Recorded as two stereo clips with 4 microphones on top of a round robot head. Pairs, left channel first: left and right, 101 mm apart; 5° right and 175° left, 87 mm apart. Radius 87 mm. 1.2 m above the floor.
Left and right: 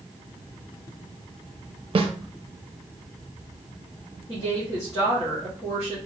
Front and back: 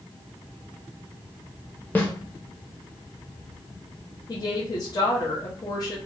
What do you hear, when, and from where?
1.9 s a snare drum: 70° right, 0.7 m
4.3 s a woman speaking: 35° left, 1.1 m